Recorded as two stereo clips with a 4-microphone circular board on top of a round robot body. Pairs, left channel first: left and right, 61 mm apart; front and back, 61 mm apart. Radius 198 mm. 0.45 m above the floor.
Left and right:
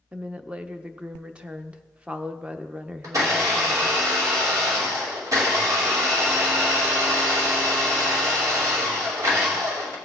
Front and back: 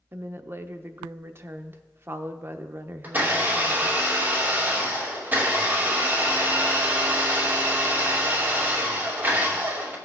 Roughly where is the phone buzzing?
No phone buzzing in this recording.